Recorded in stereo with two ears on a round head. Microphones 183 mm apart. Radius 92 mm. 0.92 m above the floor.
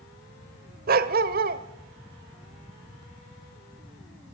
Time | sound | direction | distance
0.9 | a dog barking | 45° right (ahead or behind) | 1.2 m